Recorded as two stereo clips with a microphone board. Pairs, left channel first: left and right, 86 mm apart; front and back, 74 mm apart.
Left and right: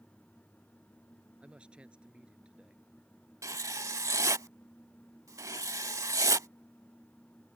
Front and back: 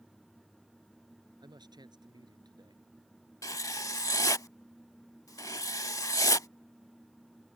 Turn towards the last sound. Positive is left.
turn(degrees=-40)